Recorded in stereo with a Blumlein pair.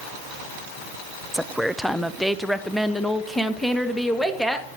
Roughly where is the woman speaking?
Ahead.